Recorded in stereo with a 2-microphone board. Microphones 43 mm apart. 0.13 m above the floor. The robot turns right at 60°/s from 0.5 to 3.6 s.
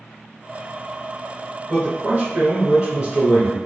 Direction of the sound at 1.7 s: 25° right (ahead or behind).